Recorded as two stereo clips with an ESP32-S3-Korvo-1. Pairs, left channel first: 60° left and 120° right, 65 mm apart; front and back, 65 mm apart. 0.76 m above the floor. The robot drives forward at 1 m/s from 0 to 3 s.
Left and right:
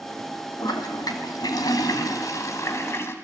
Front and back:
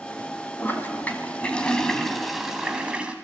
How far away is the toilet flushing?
About 3 m.